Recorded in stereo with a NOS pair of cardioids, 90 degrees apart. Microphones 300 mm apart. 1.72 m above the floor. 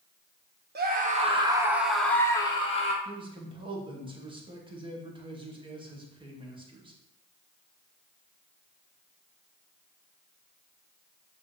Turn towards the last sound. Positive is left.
turn(degrees=-15)